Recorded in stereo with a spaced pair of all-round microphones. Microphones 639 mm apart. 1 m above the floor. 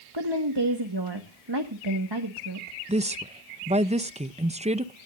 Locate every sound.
0.1 s a woman speaking: 40° right (ahead or behind), 1.4 m
2.9 s a woman speaking: 10° right (ahead or behind), 0.5 m